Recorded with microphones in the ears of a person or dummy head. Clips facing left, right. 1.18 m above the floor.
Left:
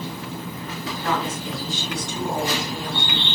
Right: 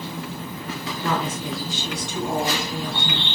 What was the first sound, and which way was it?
A woman speaking, 75° right (ahead or behind).